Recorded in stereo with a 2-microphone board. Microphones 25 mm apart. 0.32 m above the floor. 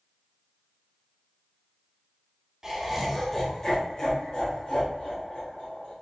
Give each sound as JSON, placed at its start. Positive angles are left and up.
{"t": 2.6, "sound": "laughter", "side_deg": -20, "distance_m": 1.0}